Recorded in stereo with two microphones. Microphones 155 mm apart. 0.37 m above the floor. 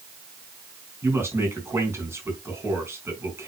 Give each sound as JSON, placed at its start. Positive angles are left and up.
{"t": 1.0, "sound": "a man speaking", "side_deg": -15, "distance_m": 4.5}